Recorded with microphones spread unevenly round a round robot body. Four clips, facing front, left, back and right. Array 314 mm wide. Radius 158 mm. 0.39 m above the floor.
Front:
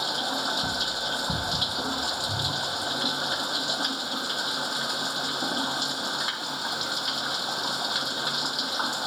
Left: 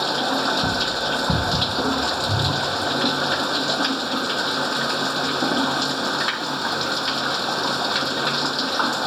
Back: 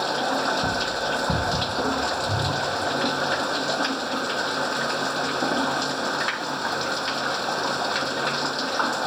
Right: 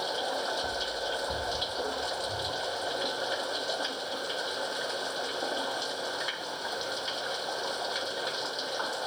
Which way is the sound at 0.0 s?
115° left.